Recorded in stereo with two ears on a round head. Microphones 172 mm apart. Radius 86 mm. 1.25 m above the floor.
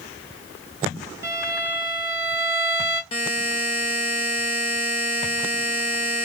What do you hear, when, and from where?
1.2 s a violin: 15° right (ahead or behind), 1.3 m
3.1 s a buzzer: 30° left (ahead or behind), 0.6 m